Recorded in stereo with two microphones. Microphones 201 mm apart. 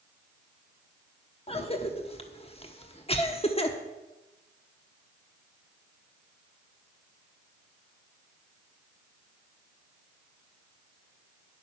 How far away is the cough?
About 1.0 m.